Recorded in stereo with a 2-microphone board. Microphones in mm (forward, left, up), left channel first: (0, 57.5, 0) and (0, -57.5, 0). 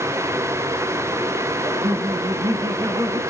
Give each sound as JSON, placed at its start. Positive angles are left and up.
{"t": 1.6, "sound": "laughter", "side_deg": -35, "distance_m": 1.9}